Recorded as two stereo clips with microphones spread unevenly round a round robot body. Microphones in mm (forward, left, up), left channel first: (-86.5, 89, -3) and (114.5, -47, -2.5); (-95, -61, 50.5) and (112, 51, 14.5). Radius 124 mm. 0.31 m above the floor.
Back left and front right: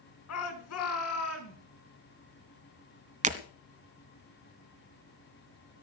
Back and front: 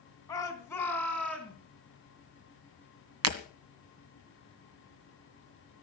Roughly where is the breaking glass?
Ahead left.